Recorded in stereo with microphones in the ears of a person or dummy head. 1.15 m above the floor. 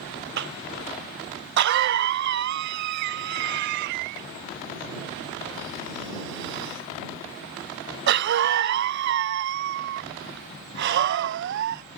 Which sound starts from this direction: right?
A cough, at 0.4 s.